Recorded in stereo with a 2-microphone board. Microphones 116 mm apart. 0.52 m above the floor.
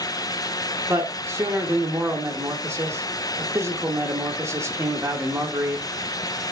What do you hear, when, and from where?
0.9 s a man speaking: 25° right (ahead or behind), 0.8 m